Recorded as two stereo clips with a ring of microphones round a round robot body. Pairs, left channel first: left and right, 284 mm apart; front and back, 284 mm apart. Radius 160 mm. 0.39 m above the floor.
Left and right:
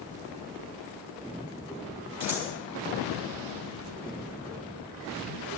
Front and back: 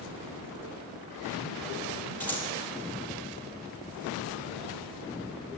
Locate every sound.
2.2 s scissors: 85° right, 5.5 m